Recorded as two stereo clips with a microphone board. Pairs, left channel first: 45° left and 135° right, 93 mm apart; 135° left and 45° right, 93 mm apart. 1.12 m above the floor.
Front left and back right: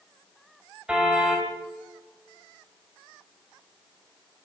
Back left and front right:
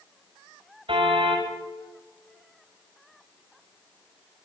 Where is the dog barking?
No dog barking in this recording.